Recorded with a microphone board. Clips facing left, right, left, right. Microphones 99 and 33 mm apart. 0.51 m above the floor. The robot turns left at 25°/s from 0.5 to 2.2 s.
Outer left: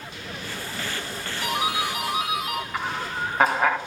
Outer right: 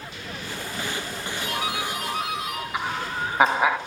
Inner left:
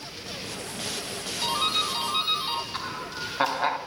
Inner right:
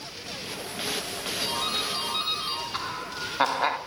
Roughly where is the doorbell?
Left.